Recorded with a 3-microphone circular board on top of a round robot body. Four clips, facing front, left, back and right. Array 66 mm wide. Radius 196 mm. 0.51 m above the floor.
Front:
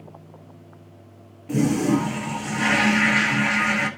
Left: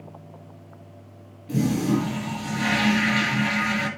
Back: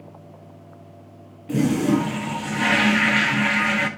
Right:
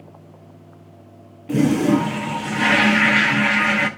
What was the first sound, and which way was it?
A toilet flushing, 105° right.